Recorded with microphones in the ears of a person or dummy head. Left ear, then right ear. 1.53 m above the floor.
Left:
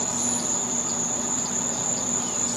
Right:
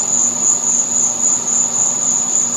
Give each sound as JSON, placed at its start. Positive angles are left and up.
{"t": 0.0, "sound": "an insect", "side_deg": -35, "distance_m": 1.4}